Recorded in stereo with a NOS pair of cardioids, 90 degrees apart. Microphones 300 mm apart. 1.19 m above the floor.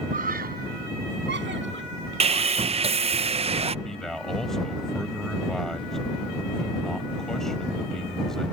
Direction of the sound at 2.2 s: 20° right.